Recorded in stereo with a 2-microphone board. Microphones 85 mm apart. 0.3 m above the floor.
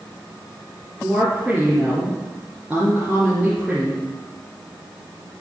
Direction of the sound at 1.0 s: 15° right (ahead or behind).